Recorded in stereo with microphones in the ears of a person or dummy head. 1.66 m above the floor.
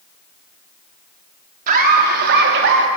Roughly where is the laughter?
Right.